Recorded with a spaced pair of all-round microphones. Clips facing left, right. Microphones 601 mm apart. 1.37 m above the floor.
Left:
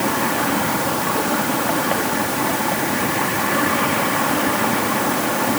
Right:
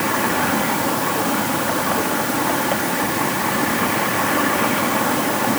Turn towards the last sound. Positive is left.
No sound to turn to.